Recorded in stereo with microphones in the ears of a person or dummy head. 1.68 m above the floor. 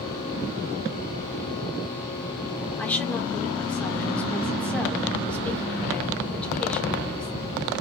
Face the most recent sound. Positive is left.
turn(degrees=10)  # may be behind; listen again after turning